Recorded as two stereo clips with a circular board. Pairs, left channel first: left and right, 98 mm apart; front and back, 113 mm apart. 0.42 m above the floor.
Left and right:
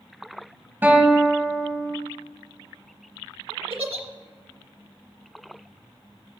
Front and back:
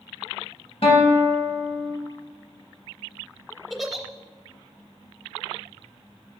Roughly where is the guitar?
Ahead.